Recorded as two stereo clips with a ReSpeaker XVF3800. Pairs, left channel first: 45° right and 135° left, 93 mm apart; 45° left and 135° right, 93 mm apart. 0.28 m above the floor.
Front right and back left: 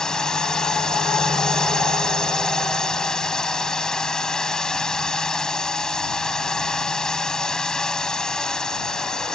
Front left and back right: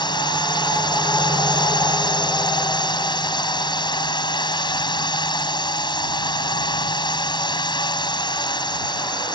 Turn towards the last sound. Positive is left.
turn(degrees=35)